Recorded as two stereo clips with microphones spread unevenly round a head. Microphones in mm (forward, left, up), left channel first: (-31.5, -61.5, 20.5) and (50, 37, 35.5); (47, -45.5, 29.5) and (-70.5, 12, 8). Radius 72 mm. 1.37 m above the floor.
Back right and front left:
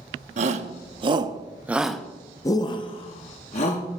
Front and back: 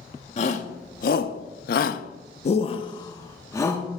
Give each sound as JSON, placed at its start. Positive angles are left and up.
{"t": 0.4, "sound": "a shout", "azimuth_deg": 20, "distance_m": 1.0}